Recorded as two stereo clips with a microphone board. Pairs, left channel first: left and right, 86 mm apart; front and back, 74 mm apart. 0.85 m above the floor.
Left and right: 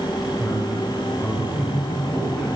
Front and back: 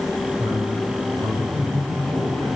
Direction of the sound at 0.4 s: 175° right.